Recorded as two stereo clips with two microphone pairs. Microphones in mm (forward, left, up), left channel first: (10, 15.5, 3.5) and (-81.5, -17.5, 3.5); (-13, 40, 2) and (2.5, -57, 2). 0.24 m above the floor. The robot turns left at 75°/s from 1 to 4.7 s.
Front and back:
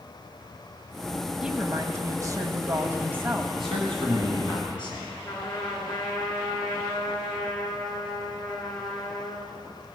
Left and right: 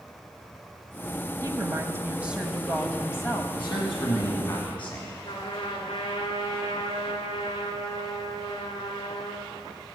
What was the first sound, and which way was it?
A woman speaking, 85° right.